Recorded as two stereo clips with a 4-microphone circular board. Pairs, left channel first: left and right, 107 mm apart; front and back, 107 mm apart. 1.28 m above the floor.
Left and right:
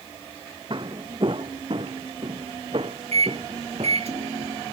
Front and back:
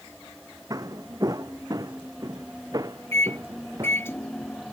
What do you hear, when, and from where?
0.7 s footsteps: 125° right
3.1 s a microwave: 70° right